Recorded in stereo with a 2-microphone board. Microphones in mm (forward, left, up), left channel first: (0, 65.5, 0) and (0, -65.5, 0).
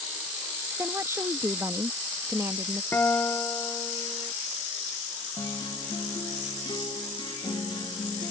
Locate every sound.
0.8 s a woman speaking: 20° right (ahead or behind)
2.9 s a guitar: 15° left (ahead or behind)
5.4 s a guitar: 35° left (ahead or behind)